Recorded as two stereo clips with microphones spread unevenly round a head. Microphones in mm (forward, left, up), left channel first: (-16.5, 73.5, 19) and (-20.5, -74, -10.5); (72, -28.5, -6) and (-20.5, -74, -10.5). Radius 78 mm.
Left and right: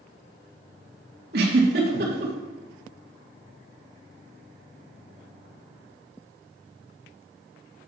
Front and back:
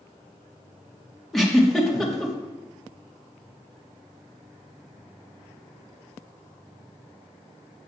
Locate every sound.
1.3 s a giggle: 60° right, 1.8 m